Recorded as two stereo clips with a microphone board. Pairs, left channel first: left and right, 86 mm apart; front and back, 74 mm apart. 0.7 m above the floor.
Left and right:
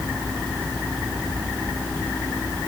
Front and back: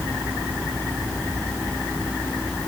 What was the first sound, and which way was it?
Only background noise.